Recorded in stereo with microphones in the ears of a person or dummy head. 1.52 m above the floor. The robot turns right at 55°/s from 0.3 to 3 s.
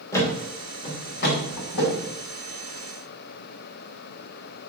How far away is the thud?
About 2.5 m.